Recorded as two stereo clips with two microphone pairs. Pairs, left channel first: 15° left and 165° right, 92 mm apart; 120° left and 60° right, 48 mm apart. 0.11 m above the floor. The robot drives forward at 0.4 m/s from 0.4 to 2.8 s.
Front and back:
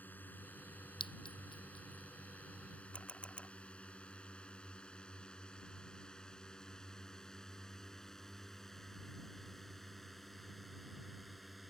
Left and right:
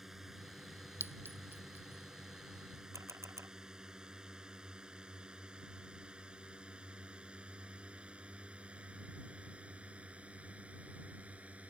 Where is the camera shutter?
65° right.